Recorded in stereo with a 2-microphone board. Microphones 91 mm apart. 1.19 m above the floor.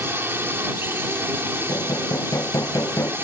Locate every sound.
0.0 s a drone: 25° right (ahead or behind)
1.7 s hammering: 35° left (ahead or behind)